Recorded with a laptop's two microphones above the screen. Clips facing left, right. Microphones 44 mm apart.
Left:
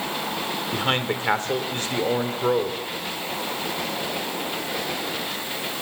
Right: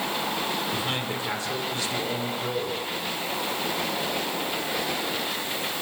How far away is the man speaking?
About 2.5 m.